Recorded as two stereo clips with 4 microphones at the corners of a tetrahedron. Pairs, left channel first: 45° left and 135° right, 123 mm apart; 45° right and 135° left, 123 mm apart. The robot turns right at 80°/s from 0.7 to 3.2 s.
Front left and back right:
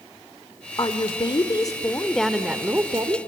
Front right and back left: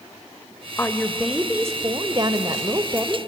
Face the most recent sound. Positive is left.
turn(degrees=-155)